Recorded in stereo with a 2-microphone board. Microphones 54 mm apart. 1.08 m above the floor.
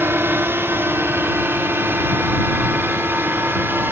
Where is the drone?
45° right (ahead or behind).